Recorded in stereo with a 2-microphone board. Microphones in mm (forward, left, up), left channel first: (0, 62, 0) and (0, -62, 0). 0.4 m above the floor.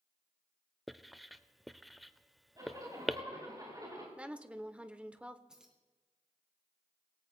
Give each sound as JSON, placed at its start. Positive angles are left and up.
{"t": 0.9, "sound": "writing", "side_deg": 0, "distance_m": 0.5}
{"t": 2.6, "sound": "a zipper", "side_deg": -30, "distance_m": 8.0}
{"t": 4.2, "sound": "a woman speaking", "side_deg": -10, "distance_m": 0.8}
{"t": 5.5, "sound": "keys jangling", "side_deg": -5, "distance_m": 2.0}